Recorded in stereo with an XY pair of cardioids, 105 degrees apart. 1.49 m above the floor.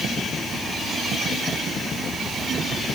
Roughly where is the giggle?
I don't hear a giggle.